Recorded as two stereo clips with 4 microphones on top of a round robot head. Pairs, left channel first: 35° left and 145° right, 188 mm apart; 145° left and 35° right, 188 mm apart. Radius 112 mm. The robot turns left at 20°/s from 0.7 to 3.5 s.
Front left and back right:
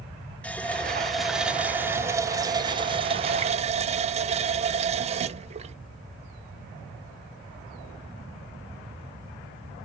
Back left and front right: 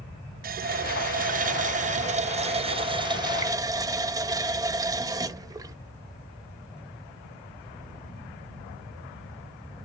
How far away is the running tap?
About 0.5 m.